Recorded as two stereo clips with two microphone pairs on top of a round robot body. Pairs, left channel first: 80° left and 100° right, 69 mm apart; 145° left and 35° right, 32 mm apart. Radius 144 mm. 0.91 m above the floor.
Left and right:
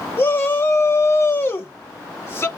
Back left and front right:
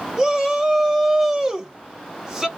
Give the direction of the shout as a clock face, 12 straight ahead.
11 o'clock.